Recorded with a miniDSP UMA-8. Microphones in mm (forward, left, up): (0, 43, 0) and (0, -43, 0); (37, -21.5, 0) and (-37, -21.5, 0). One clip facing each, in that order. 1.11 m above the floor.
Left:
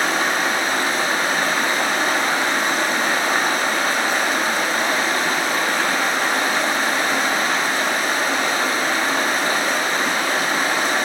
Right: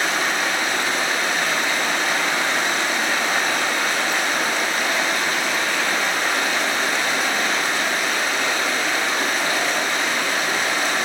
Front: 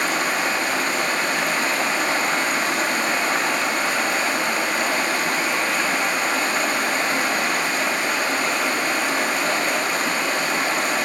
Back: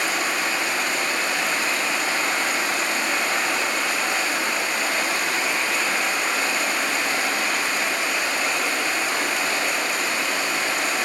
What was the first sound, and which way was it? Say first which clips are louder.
Running water: left 2 dB, front 2 dB; 40° left.